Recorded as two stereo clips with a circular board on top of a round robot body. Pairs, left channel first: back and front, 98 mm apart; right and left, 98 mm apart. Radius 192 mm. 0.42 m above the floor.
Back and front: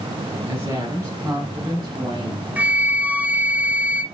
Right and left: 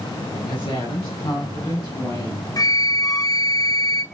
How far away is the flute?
About 1.0 m.